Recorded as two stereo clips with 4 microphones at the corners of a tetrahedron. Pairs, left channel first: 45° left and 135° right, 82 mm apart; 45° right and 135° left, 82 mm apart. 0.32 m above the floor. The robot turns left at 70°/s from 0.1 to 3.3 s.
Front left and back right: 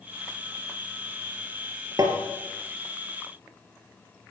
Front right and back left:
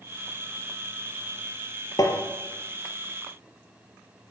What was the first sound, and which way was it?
Tapping, 90° right.